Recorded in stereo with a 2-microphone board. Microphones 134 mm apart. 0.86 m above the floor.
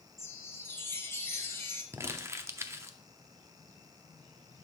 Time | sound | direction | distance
0.2 | a chime | 20° left (ahead or behind) | 0.9 m
1.9 | crumpling | 20° right (ahead or behind) | 0.5 m